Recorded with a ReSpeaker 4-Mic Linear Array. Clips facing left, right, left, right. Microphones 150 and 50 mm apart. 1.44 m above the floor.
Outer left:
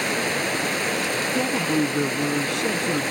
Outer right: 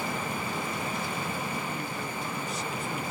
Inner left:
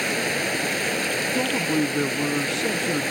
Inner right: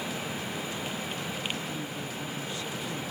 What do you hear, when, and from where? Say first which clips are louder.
0.0 s running water: outer left 7 dB, inner left 10 dB; 70° left (ahead or behind)
1.4 s a man speaking: outer left 12 dB, inner left 12 dB; 85° left